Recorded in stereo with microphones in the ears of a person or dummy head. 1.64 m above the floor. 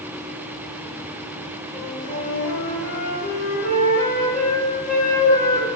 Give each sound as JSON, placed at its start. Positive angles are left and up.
{"t": 1.7, "sound": "a flute", "side_deg": 40, "distance_m": 3.0}